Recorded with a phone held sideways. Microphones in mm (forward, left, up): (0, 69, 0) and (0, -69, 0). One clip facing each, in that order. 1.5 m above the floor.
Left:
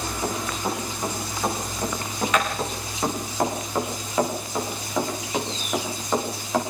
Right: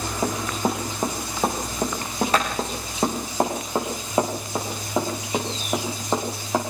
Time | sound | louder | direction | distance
0.2 | running footsteps | right 4 dB | 45° right (ahead or behind) | 5.5 m